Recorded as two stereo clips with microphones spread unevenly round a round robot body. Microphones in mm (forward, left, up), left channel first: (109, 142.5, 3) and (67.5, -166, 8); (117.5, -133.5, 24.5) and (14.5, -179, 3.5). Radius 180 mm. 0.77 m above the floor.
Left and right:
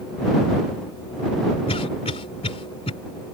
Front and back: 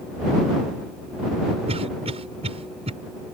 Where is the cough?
155° left.